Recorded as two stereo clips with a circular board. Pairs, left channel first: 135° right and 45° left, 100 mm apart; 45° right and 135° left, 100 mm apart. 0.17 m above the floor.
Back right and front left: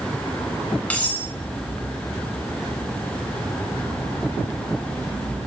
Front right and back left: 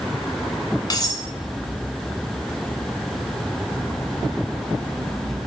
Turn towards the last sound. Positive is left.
turn(degrees=-65)